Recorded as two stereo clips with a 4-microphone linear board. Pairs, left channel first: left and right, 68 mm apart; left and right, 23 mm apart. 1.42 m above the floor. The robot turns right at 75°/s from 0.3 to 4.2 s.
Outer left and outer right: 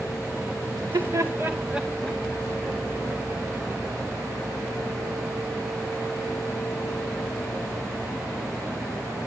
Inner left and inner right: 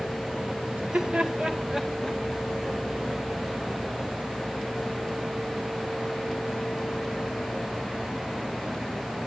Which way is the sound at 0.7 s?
80° right.